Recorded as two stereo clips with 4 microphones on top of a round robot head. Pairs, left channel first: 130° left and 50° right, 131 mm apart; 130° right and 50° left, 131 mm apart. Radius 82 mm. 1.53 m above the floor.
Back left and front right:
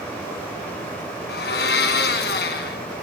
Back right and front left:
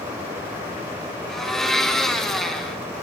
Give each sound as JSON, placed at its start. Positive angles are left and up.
{"t": 1.3, "sound": "a blender", "azimuth_deg": 140, "distance_m": 3.5}